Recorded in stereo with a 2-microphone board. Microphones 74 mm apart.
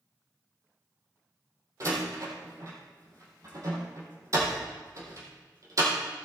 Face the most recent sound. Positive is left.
turn(degrees=-50)  # may be behind; listen again after turning